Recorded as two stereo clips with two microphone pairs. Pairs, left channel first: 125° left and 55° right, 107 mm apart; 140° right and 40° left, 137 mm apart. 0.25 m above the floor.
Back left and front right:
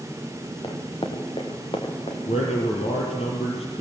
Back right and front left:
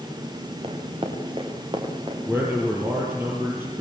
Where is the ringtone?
No ringtone in this recording.